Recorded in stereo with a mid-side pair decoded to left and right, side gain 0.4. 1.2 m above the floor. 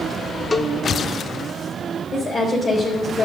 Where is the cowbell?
30° left, 1.0 m.